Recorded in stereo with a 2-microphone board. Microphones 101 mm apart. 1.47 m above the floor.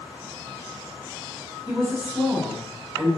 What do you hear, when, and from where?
1.7 s a woman speaking: 10° right (ahead or behind), 2.5 m